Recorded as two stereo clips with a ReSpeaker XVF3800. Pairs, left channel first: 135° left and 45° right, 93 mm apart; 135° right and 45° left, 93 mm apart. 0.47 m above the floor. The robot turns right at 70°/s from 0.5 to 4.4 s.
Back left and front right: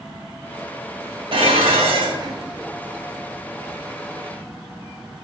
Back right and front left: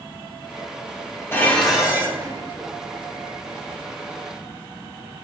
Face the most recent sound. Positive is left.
turn(degrees=145)